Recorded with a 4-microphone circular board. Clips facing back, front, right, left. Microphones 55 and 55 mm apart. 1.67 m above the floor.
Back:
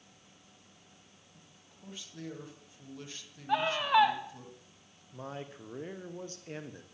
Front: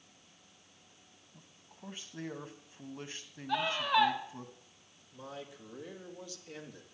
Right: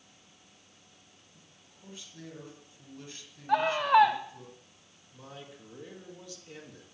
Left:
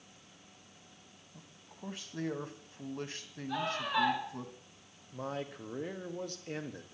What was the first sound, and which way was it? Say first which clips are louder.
A man speaking: front 4 dB, left 6 dB; 65° left.